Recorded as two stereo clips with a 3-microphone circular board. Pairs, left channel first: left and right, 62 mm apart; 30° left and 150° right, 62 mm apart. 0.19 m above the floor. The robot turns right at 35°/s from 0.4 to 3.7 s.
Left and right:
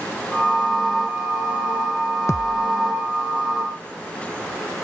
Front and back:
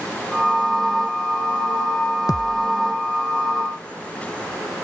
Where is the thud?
50° left; by 2.7 s 65° left.